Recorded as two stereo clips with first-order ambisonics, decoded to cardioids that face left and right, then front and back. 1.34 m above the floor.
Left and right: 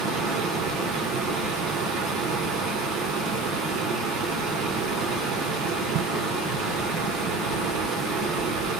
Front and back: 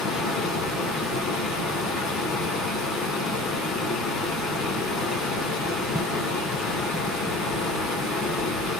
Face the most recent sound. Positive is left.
turn(degrees=-65)